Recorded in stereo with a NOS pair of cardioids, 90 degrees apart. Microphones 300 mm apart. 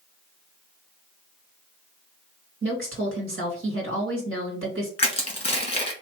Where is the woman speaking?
45° right, 2.5 m.